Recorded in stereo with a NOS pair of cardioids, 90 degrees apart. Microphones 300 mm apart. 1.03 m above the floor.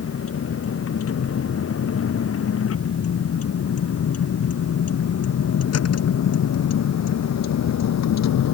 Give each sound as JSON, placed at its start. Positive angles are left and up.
{"t": 0.0, "sound": "a vehicle", "azimuth_deg": 50}